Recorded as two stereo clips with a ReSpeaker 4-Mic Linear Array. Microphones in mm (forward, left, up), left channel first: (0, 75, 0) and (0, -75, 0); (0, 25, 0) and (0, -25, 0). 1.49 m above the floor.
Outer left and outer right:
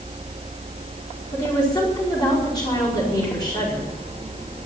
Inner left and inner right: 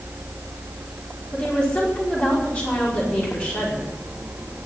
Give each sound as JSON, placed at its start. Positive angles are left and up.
{"t": 1.3, "sound": "a woman speaking", "side_deg": 25, "distance_m": 5.0}